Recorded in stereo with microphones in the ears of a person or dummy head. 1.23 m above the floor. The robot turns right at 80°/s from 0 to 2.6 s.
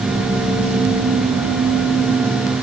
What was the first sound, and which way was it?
Only background noise.